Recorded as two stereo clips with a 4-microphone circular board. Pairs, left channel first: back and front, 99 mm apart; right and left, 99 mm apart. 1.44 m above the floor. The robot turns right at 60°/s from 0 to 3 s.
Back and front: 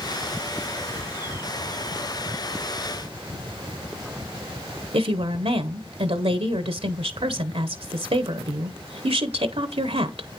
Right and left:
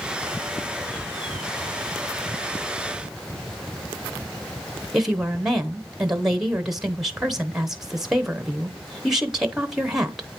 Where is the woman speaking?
5° left, 0.8 m.